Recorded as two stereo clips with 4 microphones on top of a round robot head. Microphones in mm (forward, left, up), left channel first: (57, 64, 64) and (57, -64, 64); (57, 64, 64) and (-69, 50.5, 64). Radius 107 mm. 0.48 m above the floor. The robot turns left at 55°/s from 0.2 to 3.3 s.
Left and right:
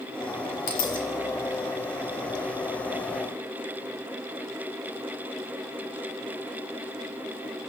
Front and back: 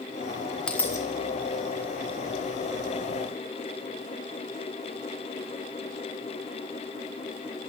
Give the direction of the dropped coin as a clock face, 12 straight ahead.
9 o'clock.